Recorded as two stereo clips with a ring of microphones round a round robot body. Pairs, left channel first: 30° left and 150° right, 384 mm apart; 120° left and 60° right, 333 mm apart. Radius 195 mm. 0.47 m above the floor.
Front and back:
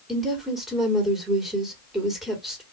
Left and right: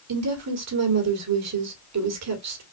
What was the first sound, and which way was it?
A woman speaking, 60° right.